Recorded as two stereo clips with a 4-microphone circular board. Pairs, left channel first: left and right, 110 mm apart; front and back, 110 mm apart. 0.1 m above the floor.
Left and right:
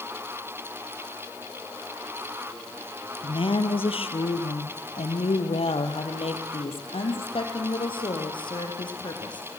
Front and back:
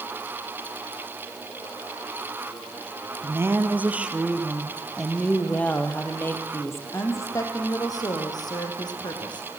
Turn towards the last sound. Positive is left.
turn(degrees=45)